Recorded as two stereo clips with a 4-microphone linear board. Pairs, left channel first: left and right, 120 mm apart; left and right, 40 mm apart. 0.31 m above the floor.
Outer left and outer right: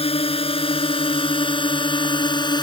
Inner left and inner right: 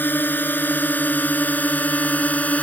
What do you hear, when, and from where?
0.0 s a drone: 55° left (ahead or behind); by 2.6 s 40° left (ahead or behind)